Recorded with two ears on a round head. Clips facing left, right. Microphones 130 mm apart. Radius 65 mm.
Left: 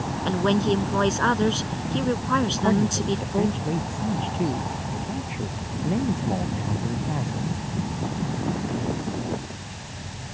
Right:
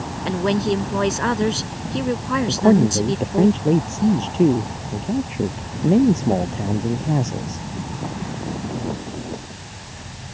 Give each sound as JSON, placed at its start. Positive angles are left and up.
{"t": 0.2, "sound": "a woman speaking", "side_deg": -10}
{"t": 2.5, "sound": "a man speaking", "side_deg": -50}